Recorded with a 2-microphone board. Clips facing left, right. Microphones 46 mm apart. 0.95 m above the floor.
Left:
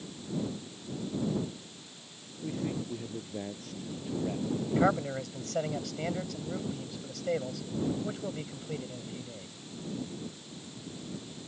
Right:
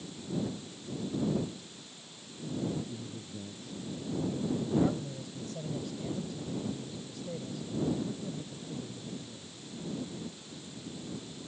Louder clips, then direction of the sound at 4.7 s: Left 5 dB; 75° left (ahead or behind).